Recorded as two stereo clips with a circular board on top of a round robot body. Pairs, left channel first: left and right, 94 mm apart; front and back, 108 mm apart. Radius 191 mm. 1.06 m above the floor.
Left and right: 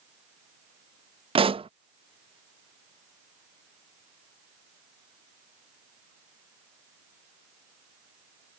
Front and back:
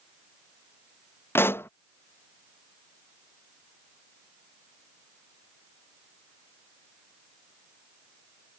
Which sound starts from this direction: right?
A pop, at 1.4 s.